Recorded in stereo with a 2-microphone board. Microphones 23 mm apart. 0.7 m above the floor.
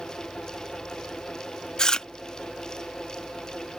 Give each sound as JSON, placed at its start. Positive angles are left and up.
{"t": 1.8, "sound": "chewing", "side_deg": 35}